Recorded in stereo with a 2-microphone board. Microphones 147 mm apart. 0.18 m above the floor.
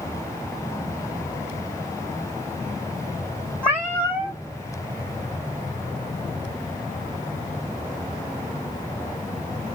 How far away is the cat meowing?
About 0.9 m.